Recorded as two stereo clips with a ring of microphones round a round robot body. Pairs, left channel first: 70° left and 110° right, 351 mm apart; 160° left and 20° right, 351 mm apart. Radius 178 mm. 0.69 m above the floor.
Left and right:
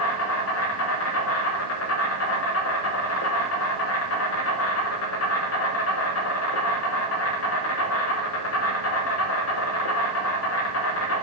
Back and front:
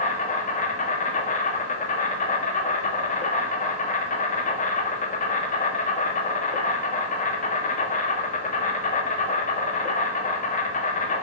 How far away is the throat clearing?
No throat clearing in this recording.